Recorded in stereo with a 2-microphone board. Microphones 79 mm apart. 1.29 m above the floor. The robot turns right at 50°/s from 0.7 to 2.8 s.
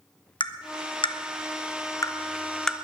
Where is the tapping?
75° left (ahead or behind), 0.7 m; by 2.8 s centre (ahead or behind), 0.7 m.